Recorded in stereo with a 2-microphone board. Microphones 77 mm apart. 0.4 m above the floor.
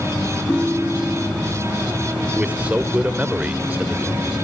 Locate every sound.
0.5 s a ringtone: 5° left (ahead or behind), 1.6 m
2.4 s a man speaking: 15° right (ahead or behind), 0.9 m